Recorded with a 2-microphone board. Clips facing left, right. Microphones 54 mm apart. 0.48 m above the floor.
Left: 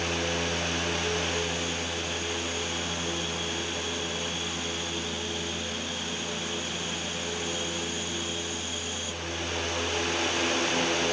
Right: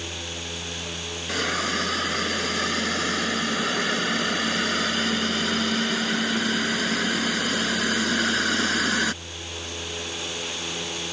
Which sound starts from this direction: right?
A hiss, at 1.3 s.